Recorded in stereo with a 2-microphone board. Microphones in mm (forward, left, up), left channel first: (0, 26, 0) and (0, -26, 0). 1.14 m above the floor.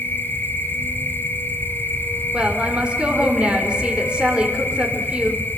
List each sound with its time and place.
0.0 s an insect: 40° left (ahead or behind), 2 m
2.3 s a woman speaking: 20° right (ahead or behind), 4 m